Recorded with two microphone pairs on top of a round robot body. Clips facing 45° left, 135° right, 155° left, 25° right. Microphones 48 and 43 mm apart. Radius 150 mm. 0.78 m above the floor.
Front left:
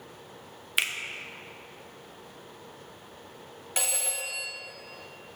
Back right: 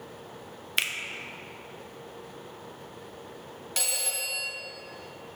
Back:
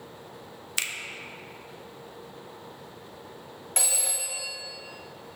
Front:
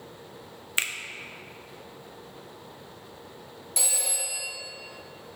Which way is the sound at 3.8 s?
115° left.